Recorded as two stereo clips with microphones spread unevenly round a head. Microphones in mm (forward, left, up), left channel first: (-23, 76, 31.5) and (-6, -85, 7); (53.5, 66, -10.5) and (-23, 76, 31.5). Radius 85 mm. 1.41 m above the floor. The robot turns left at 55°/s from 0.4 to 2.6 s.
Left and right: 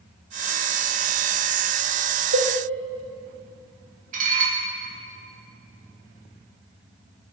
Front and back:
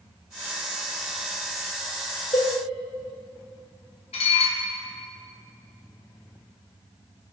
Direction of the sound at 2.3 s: 65° right.